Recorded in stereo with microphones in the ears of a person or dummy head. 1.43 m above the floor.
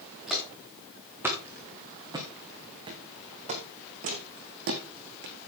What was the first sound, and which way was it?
Footsteps, centre (ahead or behind).